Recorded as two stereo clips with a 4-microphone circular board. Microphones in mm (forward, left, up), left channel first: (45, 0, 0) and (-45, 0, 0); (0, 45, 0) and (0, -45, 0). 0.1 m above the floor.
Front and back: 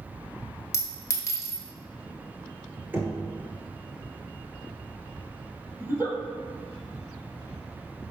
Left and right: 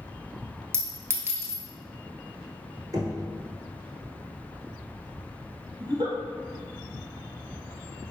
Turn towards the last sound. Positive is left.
turn(degrees=-115)